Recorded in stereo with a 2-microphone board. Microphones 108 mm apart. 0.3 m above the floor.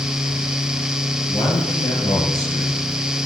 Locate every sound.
1.3 s a man speaking: 40° left (ahead or behind), 7 m